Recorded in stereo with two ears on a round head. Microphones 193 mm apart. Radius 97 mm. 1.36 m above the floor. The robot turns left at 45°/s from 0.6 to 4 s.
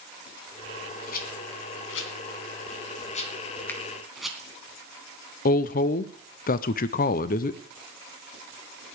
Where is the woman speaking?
40° left (ahead or behind), 0.6 m.